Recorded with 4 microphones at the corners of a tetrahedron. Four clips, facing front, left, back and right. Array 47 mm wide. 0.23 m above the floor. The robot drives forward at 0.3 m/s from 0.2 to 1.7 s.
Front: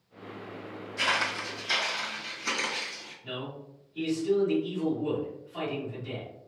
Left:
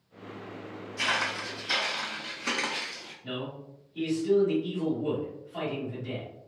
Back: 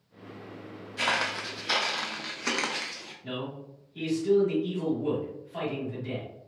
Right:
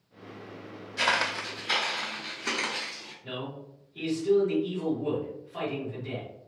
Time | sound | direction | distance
1.0 | footsteps | 110° right | 0.6 m
3.2 | a man speaking | 170° left | 1.3 m